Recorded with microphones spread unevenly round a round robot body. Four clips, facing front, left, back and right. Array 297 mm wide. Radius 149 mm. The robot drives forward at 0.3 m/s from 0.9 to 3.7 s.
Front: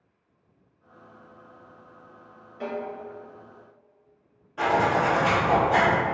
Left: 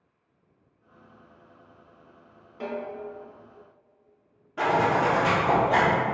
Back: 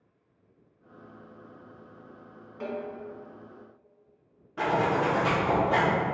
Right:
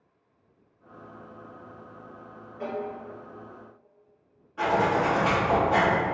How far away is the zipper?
About 1.2 m.